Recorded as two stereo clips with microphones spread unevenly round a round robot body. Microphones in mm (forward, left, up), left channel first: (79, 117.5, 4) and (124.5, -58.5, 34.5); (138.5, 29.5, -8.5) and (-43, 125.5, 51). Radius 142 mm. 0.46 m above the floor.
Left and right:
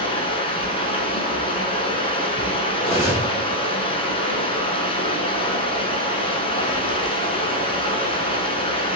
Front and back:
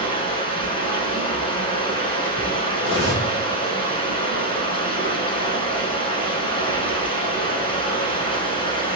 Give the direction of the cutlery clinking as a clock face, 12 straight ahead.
12 o'clock.